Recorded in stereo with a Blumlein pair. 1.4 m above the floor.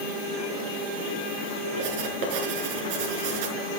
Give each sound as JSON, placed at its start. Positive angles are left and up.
{"t": 1.8, "sound": "writing", "azimuth_deg": -50, "distance_m": 5.0}